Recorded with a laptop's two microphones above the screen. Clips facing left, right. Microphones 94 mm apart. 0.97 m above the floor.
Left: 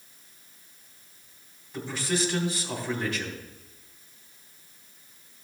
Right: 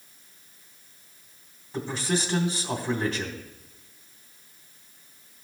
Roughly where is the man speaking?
Right.